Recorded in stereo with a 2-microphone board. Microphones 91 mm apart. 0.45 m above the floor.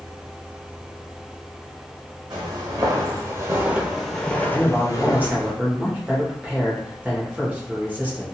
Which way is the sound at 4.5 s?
20° right (ahead or behind).